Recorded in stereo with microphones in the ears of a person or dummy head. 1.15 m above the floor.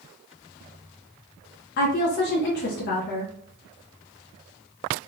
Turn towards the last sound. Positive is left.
turn(degrees=50)  # may be behind; listen again after turning